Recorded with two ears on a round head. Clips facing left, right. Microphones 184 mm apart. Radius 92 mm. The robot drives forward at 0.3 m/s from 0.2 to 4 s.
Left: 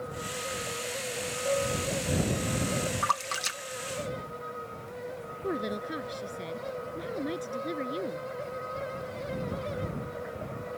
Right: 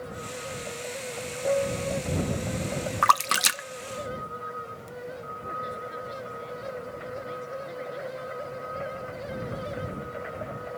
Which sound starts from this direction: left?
A woman speaking, at 5.4 s.